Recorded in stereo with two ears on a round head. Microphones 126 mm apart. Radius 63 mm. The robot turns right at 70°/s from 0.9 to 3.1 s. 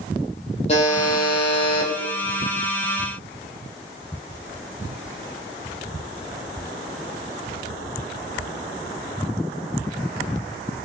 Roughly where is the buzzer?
Ahead left.